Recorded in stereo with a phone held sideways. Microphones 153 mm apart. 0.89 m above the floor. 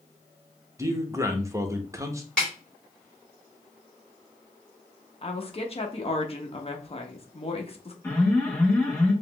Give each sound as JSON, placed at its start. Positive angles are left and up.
{"t": 0.8, "sound": "a man speaking", "side_deg": -20, "distance_m": 0.8}
{"t": 2.4, "sound": "a snare drum", "side_deg": 5, "distance_m": 2.5}
{"t": 5.2, "sound": "a woman speaking", "side_deg": 40, "distance_m": 0.8}
{"t": 8.0, "sound": "an alarm", "side_deg": 10, "distance_m": 2.0}